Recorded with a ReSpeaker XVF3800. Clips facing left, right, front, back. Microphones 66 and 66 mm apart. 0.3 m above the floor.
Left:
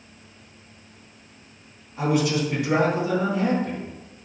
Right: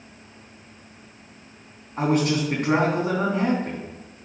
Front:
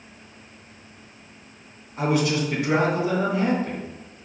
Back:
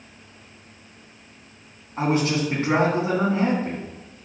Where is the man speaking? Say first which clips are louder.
Right 1 dB, even; 130° right, 3 m.